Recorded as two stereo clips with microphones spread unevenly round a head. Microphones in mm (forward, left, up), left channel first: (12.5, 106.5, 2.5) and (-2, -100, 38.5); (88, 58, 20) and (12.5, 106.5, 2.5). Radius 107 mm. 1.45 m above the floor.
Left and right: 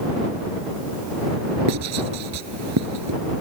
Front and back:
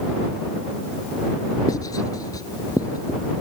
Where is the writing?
105° right.